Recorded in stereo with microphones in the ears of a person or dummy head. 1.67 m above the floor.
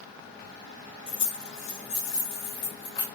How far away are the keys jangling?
About 3 m.